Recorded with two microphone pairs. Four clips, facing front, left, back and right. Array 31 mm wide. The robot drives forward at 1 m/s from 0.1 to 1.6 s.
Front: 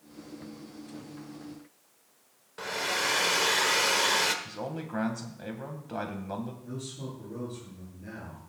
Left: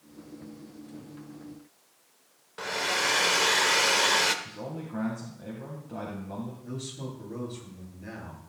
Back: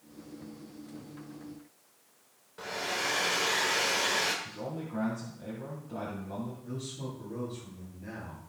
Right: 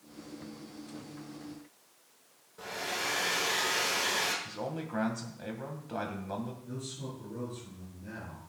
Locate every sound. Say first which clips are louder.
2.6 s a hair dryer: left 7 dB, front 3 dB; 60° left, 1.2 m
4.5 s a man speaking: right 1 dB, front 2 dB; 35° right, 1.9 m
6.6 s a man speaking: left 3 dB, even; 90° left, 8.5 m